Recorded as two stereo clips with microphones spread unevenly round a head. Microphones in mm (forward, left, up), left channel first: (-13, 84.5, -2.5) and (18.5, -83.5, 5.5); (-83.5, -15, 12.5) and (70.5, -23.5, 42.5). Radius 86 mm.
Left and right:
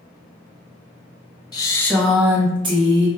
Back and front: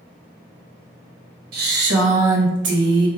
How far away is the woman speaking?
About 0.9 m.